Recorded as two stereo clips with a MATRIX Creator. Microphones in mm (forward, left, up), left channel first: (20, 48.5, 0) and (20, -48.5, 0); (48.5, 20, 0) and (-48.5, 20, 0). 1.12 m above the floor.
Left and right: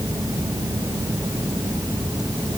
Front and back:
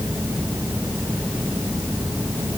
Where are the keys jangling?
No keys jangling in this recording.